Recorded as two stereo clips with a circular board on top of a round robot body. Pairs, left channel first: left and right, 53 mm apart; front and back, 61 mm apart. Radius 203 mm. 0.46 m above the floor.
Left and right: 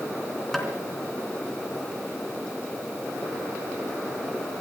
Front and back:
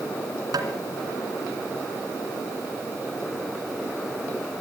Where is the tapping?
175° left, 2.5 m.